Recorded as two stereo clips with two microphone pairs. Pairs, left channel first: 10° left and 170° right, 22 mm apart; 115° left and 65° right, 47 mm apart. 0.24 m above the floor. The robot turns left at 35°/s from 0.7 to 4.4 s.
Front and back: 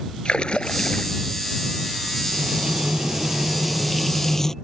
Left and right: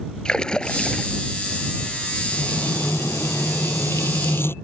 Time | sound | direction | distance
0.2 | a splash | 45° left | ?
2.3 | frying | 155° left | ?